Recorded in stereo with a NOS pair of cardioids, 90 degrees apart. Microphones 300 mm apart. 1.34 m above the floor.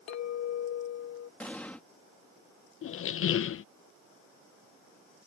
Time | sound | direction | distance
0.1 | a clink | 65° left | ?
1.4 | an explosion | 5° left | ?
2.8 | a squeak | 50° left | ?